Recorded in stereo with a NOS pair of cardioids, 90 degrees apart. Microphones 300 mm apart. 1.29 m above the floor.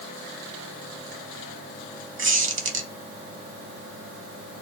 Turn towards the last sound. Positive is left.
turn(degrees=-40)